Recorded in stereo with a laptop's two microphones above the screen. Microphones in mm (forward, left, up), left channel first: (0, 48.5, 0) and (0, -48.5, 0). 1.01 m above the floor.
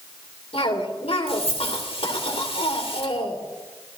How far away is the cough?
About 3 m.